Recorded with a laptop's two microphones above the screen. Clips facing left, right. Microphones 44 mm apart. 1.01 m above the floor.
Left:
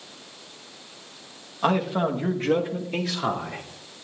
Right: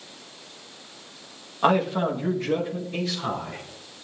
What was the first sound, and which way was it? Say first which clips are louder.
A man speaking: right 2 dB; 15° right (ahead or behind).